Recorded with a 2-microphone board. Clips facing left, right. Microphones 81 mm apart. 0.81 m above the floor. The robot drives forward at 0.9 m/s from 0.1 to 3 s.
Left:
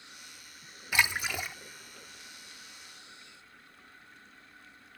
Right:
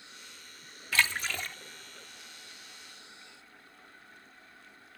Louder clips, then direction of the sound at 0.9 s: Left 1 dB; 15° left (ahead or behind).